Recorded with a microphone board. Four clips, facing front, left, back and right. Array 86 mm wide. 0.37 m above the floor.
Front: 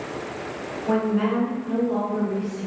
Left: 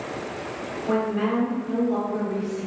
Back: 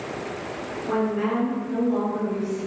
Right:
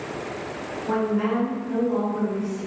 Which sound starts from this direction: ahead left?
A woman speaking, at 0.9 s.